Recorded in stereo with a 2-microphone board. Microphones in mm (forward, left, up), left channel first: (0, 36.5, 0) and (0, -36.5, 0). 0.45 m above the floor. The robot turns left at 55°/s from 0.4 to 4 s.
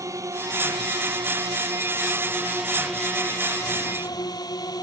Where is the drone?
45° right; by 4.8 s 115° left.